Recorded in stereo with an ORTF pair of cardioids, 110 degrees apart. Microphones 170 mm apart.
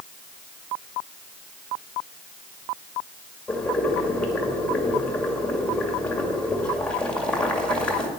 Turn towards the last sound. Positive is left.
turn(degrees=5)